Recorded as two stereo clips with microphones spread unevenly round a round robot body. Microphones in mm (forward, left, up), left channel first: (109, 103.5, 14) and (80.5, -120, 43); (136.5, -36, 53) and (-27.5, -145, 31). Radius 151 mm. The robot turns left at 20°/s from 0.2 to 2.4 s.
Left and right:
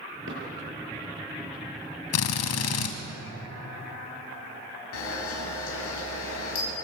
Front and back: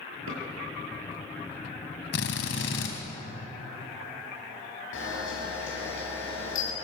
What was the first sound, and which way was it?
A drawer, 150° right.